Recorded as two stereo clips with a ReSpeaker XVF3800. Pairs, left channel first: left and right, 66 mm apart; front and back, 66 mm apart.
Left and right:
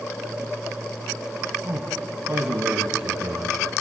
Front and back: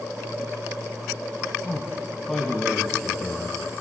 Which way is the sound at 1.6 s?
70° right.